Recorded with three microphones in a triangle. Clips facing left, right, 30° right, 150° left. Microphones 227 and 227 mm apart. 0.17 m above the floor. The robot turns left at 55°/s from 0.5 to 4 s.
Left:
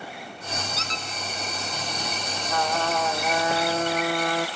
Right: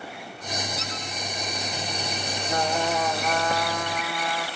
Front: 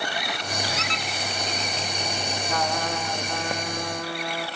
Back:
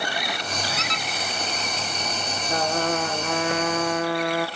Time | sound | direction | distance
0.8 | a squeak | 160° right | 1.0 m
2.5 | a trumpet | 145° right | 1.0 m